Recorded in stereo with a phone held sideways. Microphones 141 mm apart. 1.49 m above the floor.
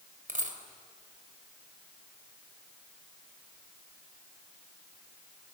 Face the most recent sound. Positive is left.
turn(degrees=-65)  # may be behind; listen again after turning